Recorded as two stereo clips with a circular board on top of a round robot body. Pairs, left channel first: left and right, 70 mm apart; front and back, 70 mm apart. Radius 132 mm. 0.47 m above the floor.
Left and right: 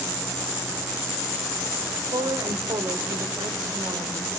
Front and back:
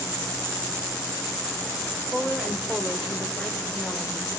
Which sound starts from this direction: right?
A woman speaking, at 2.1 s.